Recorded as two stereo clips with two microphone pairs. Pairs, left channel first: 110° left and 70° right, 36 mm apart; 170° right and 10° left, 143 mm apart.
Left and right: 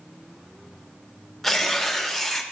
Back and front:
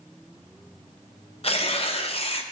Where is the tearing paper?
165° right, 0.6 m.